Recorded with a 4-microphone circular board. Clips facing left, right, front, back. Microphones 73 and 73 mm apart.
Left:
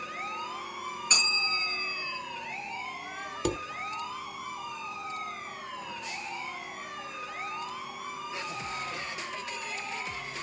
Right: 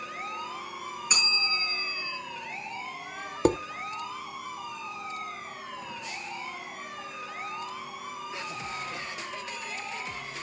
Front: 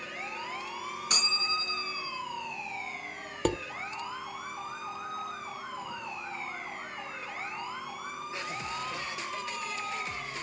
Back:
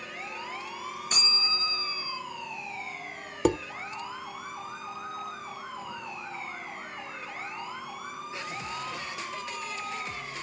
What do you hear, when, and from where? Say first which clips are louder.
1.1 s a bell: right 1 dB, front 1 dB; 5° right, 8.5 m
3.5 s dishes clattering: right 8 dB, back 5 dB; 105° right, 0.7 m